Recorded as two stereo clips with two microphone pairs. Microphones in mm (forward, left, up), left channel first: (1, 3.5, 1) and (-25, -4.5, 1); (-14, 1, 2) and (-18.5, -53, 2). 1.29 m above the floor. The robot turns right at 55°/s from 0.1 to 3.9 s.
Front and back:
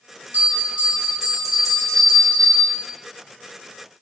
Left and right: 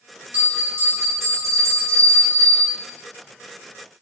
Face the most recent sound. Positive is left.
turn(degrees=45)